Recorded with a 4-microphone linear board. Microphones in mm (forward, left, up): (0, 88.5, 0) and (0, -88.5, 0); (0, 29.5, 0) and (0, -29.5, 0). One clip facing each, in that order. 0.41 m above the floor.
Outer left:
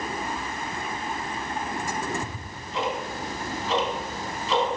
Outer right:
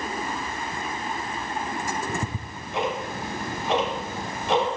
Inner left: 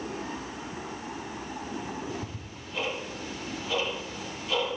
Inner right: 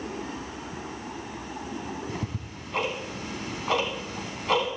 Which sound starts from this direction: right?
Ticking, at 2.1 s.